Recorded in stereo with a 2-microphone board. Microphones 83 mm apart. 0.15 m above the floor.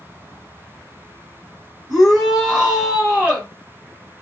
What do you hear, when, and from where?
1.9 s a shout: centre (ahead or behind), 2 m; by 3.5 s 20° right (ahead or behind), 2 m